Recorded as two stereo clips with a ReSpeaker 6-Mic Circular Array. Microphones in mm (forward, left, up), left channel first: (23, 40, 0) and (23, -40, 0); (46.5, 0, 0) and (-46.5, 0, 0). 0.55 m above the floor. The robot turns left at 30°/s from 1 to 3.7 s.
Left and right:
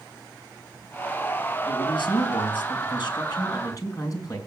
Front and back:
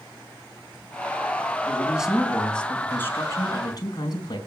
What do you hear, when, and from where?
1.7 s a man speaking: 105° left, 4 m; by 4.4 s 45° left, 4 m